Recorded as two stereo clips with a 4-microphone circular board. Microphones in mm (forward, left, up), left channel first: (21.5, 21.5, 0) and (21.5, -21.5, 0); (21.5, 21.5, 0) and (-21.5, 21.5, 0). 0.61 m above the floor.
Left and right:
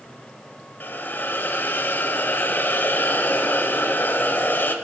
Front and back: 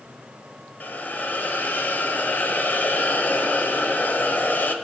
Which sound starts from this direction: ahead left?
A hiss, at 0.8 s.